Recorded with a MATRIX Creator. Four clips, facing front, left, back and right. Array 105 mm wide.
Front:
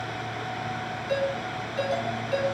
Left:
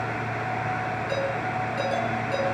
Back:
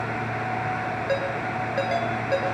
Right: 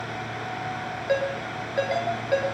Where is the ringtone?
140° right, 8.5 m.